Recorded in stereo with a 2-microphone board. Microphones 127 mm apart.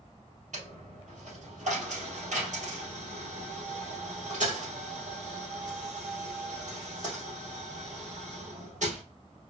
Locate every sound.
0.5 s a dropped coin: 75° right (ahead or behind), 2 m